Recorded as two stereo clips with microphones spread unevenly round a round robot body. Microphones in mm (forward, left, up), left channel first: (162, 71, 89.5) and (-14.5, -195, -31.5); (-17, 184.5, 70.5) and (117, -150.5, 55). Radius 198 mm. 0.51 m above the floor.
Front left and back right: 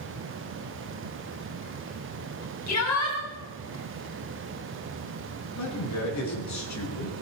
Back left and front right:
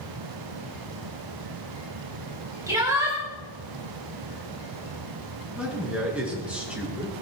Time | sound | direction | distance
2.7 | a shout | 15° left | 4 m
5.6 | a man speaking | 20° left | 7 m